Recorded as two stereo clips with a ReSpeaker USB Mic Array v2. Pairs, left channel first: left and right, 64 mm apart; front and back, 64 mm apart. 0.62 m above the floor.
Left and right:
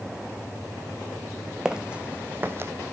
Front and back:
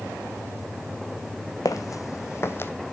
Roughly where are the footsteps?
Ahead.